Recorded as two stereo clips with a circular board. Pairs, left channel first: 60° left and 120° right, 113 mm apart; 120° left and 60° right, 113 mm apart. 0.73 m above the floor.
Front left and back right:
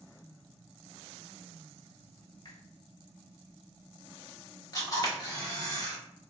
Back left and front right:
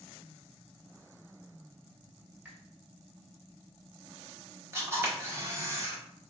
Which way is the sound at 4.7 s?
5° left.